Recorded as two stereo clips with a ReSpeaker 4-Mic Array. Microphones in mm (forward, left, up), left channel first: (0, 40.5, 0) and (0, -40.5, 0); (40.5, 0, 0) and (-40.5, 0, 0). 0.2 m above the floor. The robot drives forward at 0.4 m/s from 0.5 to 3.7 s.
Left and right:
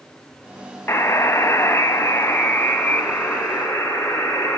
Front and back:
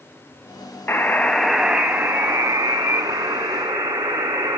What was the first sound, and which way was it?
A buzzer, 50° left.